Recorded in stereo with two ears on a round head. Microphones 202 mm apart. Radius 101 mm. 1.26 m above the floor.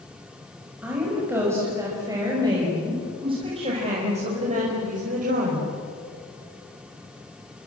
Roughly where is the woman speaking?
Centre.